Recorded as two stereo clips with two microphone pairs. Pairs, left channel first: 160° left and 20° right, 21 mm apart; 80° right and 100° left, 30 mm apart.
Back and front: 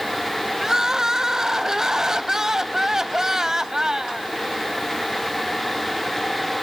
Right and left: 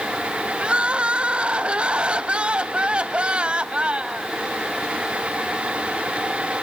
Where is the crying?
45° left, 0.6 m.